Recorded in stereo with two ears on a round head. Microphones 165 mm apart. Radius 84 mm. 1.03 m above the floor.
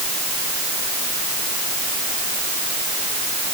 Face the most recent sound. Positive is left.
No sound to turn to.